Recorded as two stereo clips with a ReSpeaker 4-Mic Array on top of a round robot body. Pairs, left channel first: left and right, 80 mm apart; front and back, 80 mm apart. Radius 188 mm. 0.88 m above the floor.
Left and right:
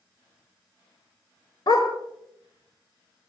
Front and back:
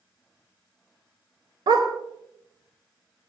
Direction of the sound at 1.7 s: 135° left.